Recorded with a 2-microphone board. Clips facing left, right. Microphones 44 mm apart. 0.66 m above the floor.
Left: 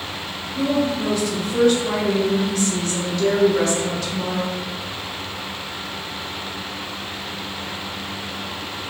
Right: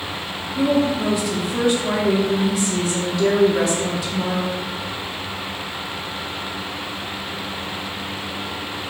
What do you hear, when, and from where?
0.6 s a woman speaking: 10° right (ahead or behind), 0.5 m